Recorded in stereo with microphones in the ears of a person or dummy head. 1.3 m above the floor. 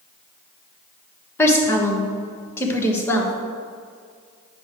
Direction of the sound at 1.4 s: 15° left (ahead or behind).